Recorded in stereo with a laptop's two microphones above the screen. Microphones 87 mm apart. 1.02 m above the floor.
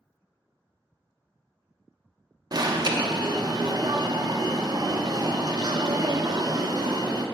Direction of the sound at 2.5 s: 50° right (ahead or behind).